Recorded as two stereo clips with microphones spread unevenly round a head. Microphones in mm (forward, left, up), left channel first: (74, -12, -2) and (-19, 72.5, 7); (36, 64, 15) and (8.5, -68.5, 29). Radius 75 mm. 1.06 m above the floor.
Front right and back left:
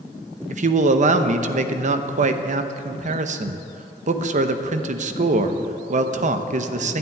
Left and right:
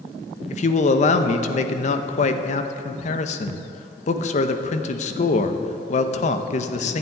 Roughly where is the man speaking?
Behind left.